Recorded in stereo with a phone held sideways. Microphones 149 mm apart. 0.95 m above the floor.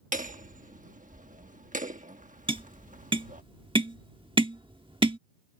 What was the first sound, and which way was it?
Hammering, 60° right (ahead or behind).